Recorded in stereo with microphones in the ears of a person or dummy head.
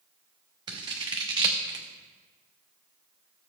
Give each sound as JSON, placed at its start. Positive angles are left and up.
{"t": 0.7, "sound": "scissors", "side_deg": -25, "distance_m": 0.9}